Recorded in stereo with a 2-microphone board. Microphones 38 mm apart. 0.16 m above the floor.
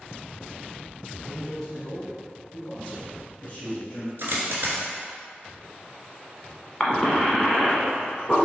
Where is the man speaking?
15° right (ahead or behind), 1.4 m; by 4.1 s 25° left (ahead or behind), 2 m.